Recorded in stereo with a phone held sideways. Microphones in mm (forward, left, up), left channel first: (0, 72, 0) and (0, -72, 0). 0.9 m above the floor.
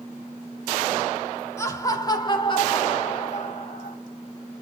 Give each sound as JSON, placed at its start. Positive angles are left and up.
{"t": 1.6, "sound": "laughter", "side_deg": 20, "distance_m": 2.0}